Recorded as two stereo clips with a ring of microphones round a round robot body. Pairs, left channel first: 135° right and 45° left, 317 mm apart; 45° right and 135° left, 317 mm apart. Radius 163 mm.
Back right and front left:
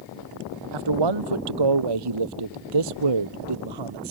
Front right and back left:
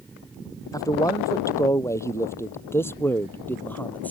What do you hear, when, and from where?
0.7 s a man speaking: 35° left; by 4.1 s 40° left